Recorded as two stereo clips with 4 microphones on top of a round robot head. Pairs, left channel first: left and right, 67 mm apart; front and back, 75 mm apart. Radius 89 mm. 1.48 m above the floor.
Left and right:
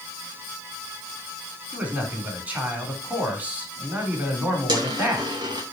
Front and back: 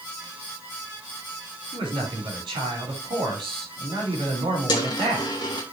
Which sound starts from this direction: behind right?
A man speaking, at 1.7 s.